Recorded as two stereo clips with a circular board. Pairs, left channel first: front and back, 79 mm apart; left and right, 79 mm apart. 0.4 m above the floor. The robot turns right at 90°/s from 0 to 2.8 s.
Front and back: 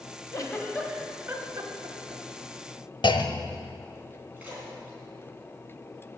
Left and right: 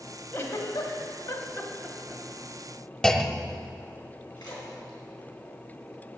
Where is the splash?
110° left, 3.5 m.